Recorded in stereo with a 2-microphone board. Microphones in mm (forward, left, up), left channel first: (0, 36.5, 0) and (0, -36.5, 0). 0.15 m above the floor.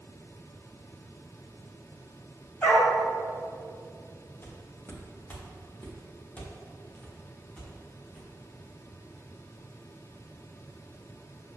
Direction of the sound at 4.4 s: 30° left (ahead or behind).